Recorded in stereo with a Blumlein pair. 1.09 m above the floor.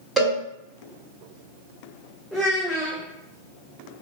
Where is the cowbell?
5° right, 1.7 m.